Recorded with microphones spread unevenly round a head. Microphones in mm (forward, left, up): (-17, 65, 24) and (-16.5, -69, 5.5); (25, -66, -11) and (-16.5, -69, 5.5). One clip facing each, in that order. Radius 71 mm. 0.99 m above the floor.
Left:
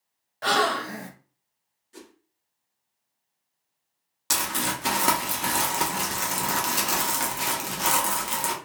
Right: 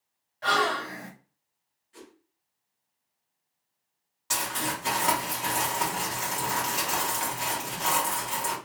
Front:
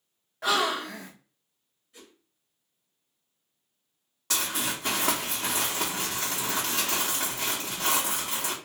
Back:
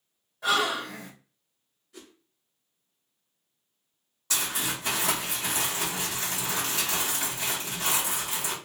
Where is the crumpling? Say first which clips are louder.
Left 2 dB, even; 55° left, 0.9 m.